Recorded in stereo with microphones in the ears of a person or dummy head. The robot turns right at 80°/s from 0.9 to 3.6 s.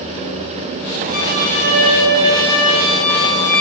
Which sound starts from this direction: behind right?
A violin, at 1.1 s.